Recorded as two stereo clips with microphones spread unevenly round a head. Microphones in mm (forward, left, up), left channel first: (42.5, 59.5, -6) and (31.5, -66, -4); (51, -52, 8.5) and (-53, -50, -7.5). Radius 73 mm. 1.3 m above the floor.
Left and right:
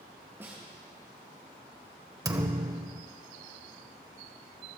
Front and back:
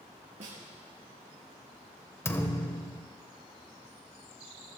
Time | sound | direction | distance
0.4 | a snare drum | 170° right | 4 m
2.2 | a thud | 45° right | 1.4 m